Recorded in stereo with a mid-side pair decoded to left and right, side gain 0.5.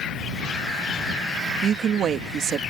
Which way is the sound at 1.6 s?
60° right.